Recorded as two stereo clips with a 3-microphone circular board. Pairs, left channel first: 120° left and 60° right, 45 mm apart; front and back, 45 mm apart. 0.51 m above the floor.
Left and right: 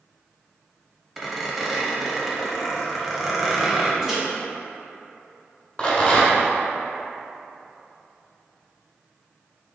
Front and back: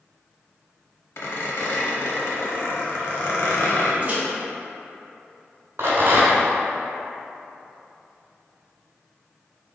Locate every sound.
1.2 s a squeak: 25° left, 0.8 m
4.0 s a microwave: 135° right, 1.1 m
5.8 s a rattle: straight behind, 1.4 m